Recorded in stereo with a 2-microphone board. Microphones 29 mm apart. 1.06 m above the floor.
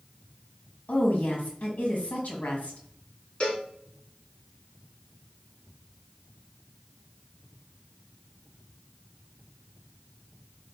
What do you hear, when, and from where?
0.9 s a woman speaking: 70° left (ahead or behind), 1.3 m
3.4 s a cowbell: 40° left (ahead or behind), 1.7 m